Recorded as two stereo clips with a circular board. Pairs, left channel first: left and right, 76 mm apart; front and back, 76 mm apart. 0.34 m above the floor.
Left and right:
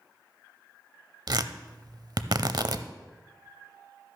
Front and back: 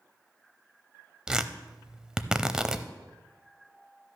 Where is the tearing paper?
100° right, 0.6 m.